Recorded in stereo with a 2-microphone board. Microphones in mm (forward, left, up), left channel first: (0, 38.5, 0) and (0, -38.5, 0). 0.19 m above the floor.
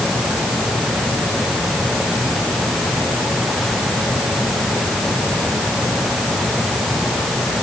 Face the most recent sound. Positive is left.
No sound to turn to.